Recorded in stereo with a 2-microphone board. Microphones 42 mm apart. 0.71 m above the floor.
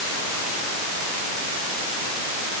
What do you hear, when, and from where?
Only background noise.